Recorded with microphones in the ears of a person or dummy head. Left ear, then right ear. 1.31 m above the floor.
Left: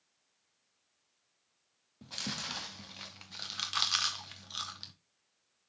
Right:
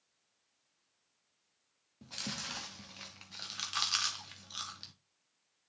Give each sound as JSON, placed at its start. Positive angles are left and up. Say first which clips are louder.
{"t": 2.0, "sound": "chewing", "louder": "left 2 dB", "side_deg": 10, "distance_m": 0.8}